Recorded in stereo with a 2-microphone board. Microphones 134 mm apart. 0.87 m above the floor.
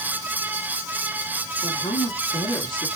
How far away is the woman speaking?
About 1.8 m.